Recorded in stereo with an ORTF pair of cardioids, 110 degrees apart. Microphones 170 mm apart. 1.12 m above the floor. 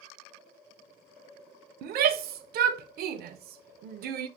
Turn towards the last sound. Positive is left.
turn(degrees=-65)